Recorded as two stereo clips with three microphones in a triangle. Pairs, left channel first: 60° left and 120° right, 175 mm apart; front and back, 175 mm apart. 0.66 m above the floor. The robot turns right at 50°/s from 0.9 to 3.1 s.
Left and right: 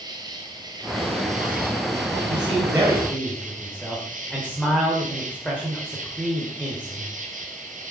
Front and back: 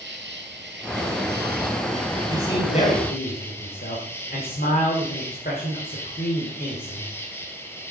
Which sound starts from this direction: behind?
An insect, at 0.0 s.